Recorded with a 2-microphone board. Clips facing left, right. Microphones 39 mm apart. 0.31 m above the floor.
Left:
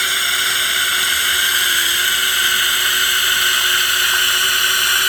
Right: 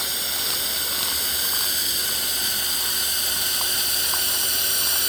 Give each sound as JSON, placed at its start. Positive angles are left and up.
{"t": 0.0, "sound": "a drone", "side_deg": 70}